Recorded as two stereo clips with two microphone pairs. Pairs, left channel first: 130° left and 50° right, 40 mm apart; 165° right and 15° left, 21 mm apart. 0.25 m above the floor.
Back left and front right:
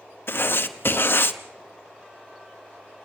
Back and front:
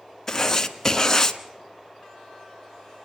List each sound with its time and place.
0.3 s writing: 125° left, 1.0 m